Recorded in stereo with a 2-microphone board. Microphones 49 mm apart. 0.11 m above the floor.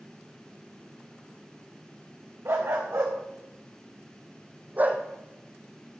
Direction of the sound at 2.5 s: 60° right (ahead or behind).